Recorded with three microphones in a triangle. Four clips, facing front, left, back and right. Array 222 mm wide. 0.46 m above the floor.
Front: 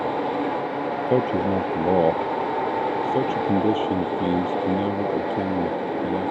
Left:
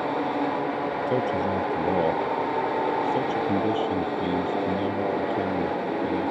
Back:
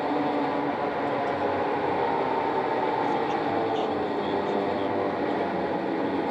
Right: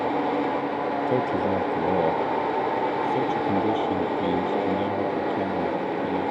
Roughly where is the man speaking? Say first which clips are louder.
Right 1 dB, front 5 dB; ahead.